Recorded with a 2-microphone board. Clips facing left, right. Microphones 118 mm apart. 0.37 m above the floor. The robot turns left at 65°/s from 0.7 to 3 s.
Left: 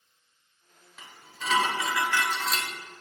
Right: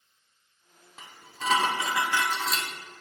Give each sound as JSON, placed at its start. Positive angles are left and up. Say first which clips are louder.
{"t": 1.0, "sound": "dishes clattering", "louder": "right 4 dB", "azimuth_deg": -75, "distance_m": 0.7}